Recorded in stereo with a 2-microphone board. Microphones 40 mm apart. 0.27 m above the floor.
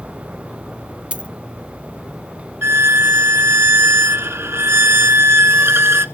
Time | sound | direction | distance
1.1 | a dropped coin | 30° right (ahead or behind) | 0.8 m
2.6 | a violin | 80° right | 0.8 m